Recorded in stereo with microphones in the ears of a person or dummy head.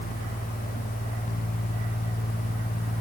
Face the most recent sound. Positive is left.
No sound to turn to.